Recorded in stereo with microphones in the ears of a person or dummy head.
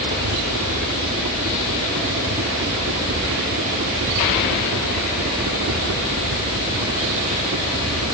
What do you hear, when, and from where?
0.0 s a helicopter: 65° right (ahead or behind); by 8.2 s 70° right (ahead or behind)